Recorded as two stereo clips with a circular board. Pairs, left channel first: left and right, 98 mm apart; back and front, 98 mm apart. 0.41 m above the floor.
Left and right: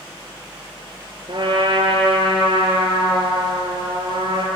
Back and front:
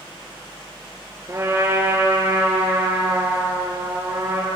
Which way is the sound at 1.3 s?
60° right.